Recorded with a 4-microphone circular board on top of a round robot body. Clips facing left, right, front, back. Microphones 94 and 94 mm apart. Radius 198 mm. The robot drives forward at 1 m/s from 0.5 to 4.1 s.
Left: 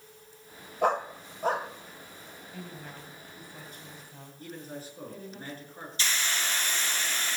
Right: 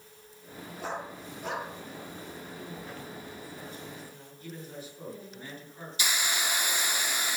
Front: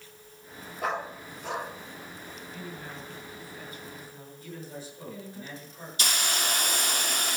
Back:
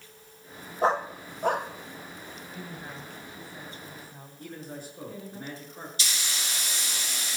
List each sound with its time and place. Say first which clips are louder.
0.8 s a dog barking: left 10 dB, back 6 dB; 120° left, 1.3 m; by 2.4 s 155° left, 2.5 m
2.5 s a woman speaking: left 1 dB, even; 105° left, 5 m; by 5.4 s 125° left, 5.5 m
4.4 s a man speaking: left 2 dB, back 1 dB; 140° left, 7.5 m
6.0 s a hiss: right 1 dB, front 7 dB; 15° right, 1.3 m